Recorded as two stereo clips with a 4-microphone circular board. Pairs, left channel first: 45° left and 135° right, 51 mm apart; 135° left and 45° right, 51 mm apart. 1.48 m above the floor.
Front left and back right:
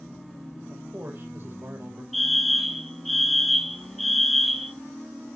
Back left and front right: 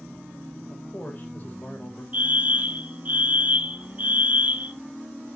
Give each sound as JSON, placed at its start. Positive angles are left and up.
{"t": 0.7, "sound": "a man speaking", "azimuth_deg": -175, "distance_m": 1.4}
{"t": 2.1, "sound": "a fire alarm", "azimuth_deg": -40, "distance_m": 0.8}